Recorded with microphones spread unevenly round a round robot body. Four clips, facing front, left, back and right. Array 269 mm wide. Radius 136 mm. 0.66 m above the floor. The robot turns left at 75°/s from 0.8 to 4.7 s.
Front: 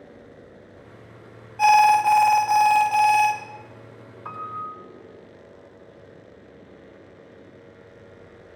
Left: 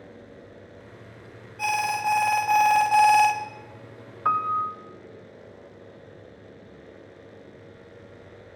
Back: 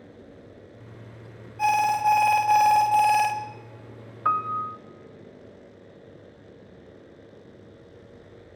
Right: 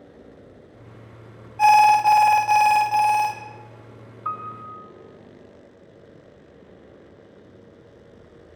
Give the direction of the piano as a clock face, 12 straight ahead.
9 o'clock.